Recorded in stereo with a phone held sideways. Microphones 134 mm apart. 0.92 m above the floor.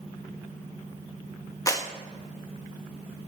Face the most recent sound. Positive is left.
turn(degrees=25)  # may be behind; listen again after turning